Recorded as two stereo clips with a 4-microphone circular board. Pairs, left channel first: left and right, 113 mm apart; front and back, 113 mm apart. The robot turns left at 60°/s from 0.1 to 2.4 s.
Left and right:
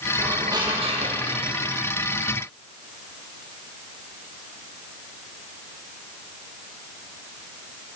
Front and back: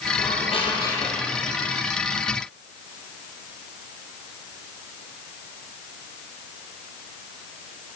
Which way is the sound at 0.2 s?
15° right.